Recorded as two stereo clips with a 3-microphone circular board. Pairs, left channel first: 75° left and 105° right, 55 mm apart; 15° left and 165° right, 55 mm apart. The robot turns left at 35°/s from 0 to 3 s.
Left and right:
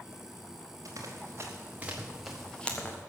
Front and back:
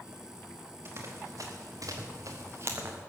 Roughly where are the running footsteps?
Behind right.